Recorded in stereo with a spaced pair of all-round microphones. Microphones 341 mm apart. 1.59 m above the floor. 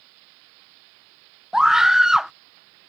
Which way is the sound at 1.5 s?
Centre (ahead or behind).